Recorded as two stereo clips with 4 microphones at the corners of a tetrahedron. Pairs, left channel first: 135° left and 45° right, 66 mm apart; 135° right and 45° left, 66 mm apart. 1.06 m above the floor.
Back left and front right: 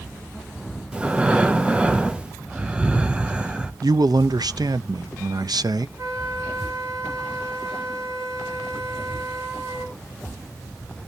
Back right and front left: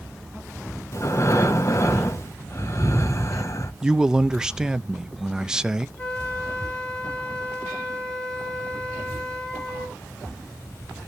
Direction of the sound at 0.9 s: 115° right.